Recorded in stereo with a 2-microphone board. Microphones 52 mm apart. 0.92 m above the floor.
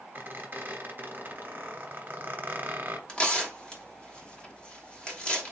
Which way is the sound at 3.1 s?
20° left (ahead or behind).